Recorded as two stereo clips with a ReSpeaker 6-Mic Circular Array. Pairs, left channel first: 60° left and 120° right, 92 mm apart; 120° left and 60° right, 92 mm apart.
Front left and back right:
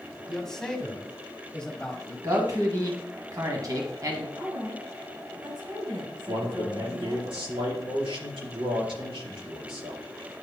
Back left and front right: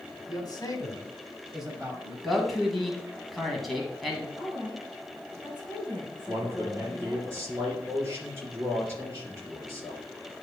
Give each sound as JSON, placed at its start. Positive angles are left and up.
{"t": 0.3, "sound": "a man speaking", "azimuth_deg": 145, "distance_m": 1.8}
{"t": 2.2, "sound": "a man speaking", "azimuth_deg": -150, "distance_m": 1.6}
{"t": 4.4, "sound": "a woman speaking", "azimuth_deg": -100, "distance_m": 3.5}
{"t": 6.3, "sound": "a man speaking", "azimuth_deg": -120, "distance_m": 4.0}